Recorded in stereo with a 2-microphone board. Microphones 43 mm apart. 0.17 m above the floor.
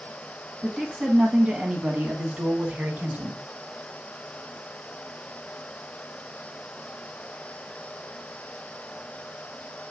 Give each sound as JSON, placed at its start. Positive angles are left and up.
{"t": 0.6, "sound": "a woman speaking", "side_deg": -5, "distance_m": 1.5}